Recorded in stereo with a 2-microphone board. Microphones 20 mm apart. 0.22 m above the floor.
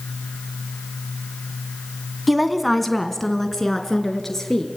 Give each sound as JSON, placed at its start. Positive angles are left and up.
{"t": 2.3, "sound": "a woman speaking", "side_deg": -5, "distance_m": 1.5}